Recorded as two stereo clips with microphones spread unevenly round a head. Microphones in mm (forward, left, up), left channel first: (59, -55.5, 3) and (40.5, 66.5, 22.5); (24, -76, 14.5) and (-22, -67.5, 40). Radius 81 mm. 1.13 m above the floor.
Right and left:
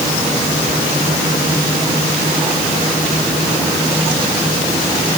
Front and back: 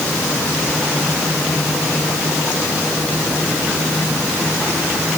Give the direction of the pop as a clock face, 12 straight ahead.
I don't hear a pop.